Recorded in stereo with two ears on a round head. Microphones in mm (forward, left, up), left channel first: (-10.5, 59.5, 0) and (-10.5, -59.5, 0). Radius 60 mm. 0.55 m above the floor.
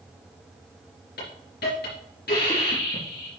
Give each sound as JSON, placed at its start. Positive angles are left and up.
{"t": 1.2, "sound": "a hiss", "side_deg": 75, "distance_m": 4.0}